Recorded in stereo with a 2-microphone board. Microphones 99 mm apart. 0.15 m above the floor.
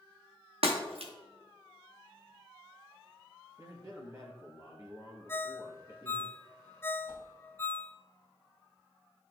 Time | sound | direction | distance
0.6 | breaking glass | 70° right (ahead or behind) | 3 m
3.6 | a man speaking | 35° right (ahead or behind) | 2.5 m
5.3 | a ringtone | 25° left (ahead or behind) | 0.7 m
7.1 | a whoosh | 50° left (ahead or behind) | 3 m